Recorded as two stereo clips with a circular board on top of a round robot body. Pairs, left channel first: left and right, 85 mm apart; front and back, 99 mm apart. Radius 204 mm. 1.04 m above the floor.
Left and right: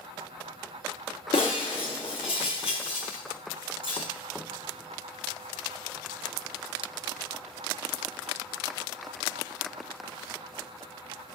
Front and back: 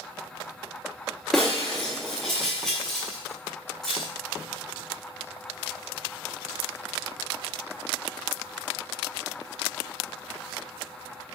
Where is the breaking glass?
85° left, 0.5 m.